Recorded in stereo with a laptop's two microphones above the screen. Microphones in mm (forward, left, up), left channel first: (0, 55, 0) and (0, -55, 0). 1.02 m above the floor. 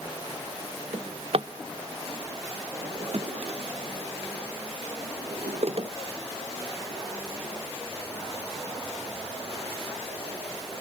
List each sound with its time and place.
0.9 s a drawer: 60° right (ahead or behind), 0.6 m